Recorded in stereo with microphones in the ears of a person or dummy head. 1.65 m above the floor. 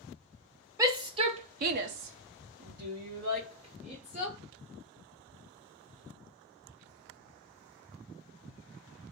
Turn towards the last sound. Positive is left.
turn(degrees=-35)  # may be behind; listen again after turning